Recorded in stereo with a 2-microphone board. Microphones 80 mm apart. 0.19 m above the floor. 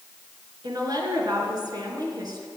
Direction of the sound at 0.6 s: 55° right (ahead or behind).